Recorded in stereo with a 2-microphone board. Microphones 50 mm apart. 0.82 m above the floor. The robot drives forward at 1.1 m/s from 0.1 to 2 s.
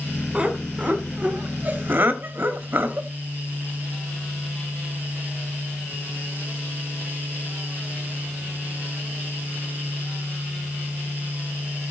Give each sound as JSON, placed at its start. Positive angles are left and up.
{"t": 0.3, "sound": "laughter", "side_deg": -20, "distance_m": 3.5}